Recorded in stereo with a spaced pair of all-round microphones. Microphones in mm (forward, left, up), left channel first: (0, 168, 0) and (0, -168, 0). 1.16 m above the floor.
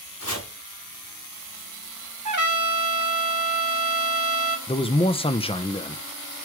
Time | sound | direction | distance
0.2 | chopping | 45° left (ahead or behind) | 5 m
2.2 | a trumpet | 60° right (ahead or behind) | 0.9 m
4.7 | a man speaking | 15° left (ahead or behind) | 0.8 m